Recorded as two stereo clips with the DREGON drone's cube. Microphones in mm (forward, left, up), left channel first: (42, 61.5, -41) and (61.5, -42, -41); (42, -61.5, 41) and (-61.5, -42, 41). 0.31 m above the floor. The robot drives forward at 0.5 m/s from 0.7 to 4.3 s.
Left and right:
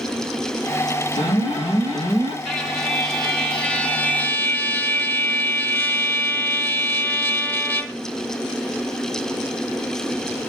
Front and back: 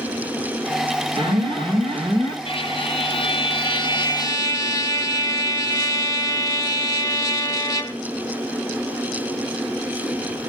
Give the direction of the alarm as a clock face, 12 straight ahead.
8 o'clock.